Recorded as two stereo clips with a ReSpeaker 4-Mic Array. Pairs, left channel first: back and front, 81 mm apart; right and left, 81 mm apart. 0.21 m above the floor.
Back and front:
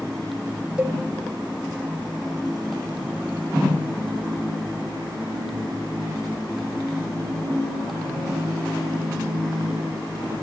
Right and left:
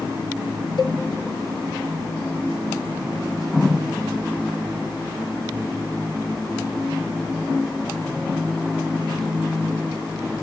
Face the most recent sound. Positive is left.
turn(degrees=-75)